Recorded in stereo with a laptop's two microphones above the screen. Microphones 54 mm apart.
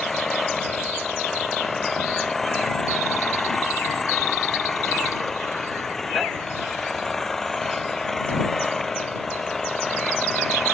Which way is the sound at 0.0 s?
5° left (ahead or behind).